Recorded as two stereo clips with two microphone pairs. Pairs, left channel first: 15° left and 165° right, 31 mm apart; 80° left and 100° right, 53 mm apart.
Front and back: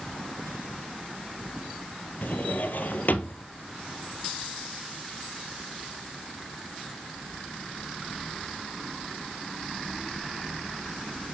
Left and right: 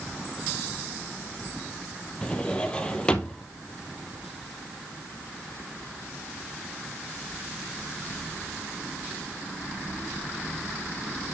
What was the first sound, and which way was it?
A drawer, 10° left.